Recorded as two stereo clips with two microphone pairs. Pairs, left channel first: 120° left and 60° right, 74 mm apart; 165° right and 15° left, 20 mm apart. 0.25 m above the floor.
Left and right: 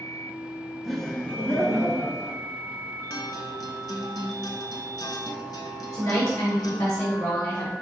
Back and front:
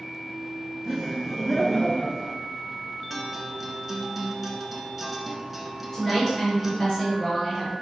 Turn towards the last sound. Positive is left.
turn(degrees=110)